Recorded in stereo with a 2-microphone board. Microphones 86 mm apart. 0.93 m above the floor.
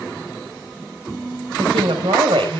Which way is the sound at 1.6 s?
85° right.